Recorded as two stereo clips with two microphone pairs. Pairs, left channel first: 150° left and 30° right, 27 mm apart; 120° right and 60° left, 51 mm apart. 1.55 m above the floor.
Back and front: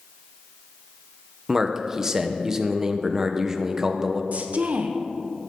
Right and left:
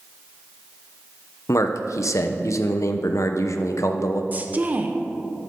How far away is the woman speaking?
About 1.2 m.